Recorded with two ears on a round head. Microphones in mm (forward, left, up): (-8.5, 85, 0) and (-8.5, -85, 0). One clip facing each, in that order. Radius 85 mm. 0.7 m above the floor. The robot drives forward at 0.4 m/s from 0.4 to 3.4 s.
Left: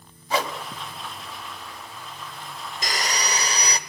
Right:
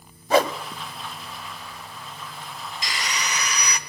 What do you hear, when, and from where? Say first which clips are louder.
0.3 s a whoosh: right 7 dB; 40° right (ahead or behind), 0.7 m
2.8 s sawing: left 3 dB; 35° left (ahead or behind), 0.7 m; by 3.8 s 30° left (ahead or behind), 0.9 m